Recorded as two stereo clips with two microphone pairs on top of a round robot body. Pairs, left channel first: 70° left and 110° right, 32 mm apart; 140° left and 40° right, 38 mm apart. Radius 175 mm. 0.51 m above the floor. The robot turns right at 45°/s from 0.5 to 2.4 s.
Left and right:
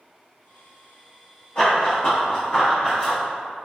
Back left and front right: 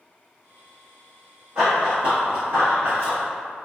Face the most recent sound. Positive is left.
turn(degrees=-50)